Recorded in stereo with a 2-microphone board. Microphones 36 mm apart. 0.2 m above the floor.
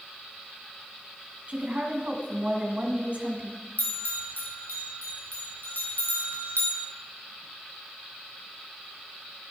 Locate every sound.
1.5 s a woman speaking: 40° right (ahead or behind), 1.9 m
3.8 s a bell: 65° left (ahead or behind), 3 m